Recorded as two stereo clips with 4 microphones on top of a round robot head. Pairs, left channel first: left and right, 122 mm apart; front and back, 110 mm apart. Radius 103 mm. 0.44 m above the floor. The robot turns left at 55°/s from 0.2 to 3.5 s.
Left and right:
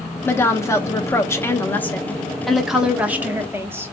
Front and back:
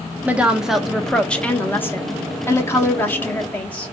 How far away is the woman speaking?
About 0.9 m.